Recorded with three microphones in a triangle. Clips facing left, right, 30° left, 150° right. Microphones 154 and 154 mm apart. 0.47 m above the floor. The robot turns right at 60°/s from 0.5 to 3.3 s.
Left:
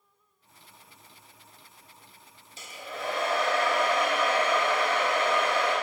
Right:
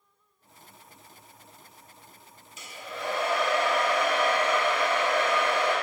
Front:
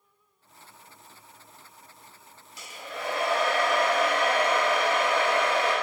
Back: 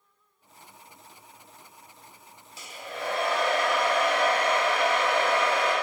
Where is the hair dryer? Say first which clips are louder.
Even, back 1 dB; 145° left, 0.8 m; by 5.7 s 170° right, 0.8 m.